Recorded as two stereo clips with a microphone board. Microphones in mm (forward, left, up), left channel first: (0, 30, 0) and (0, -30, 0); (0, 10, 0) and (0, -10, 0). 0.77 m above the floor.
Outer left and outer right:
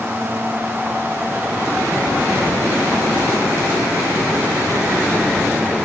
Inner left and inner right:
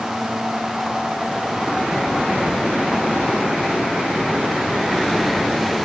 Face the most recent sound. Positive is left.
No sound to turn to.